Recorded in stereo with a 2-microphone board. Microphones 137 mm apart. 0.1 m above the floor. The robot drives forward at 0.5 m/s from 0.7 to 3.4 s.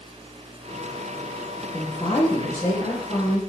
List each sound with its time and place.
1.7 s a woman speaking: 20° left (ahead or behind), 2 m; by 3.4 s 15° left (ahead or behind), 2.5 m